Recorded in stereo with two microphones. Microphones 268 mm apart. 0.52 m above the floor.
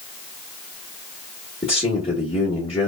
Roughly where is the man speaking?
Left.